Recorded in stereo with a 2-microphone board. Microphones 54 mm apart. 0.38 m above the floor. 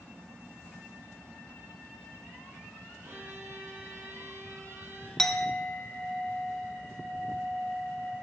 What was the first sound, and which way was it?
A violin, 50° right (ahead or behind).